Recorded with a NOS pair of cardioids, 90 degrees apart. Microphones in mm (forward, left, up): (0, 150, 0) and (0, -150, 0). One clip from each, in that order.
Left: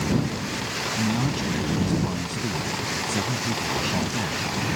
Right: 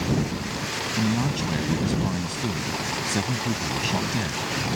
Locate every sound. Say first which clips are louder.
1.0 s a man speaking: even; 20° right